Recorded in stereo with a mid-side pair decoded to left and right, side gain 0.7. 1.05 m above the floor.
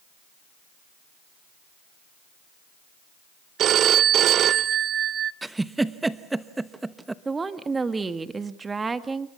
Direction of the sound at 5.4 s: 10° right.